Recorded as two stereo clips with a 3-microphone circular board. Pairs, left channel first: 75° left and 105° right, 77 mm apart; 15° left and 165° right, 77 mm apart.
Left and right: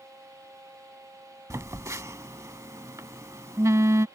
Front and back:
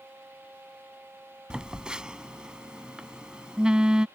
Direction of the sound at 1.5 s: 95° right.